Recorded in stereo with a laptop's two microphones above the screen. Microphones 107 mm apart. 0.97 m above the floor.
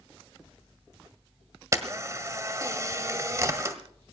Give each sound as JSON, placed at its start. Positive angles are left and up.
{"t": 1.7, "sound": "a camera shutter", "side_deg": -30, "distance_m": 1.6}